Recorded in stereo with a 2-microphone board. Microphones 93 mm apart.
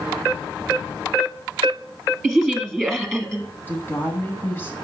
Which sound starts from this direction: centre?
A woman speaking, at 2.2 s.